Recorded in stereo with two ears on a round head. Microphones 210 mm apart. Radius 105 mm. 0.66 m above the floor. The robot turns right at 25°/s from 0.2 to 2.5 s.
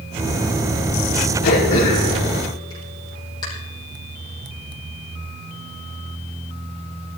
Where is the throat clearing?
45° left (ahead or behind), 6 m; by 3.5 s 20° left (ahead or behind), 6 m.